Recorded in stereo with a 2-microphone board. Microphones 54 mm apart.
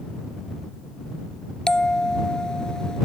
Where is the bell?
15° left (ahead or behind).